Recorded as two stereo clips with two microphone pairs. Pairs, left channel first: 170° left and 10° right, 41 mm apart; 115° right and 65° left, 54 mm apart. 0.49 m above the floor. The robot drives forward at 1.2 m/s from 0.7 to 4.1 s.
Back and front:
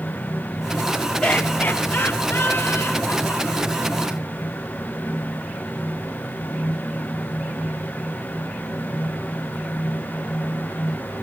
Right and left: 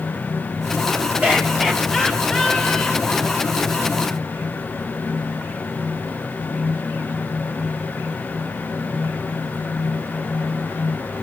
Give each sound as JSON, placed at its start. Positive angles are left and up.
{"t": 1.2, "sound": "laughter", "azimuth_deg": 105, "distance_m": 1.6}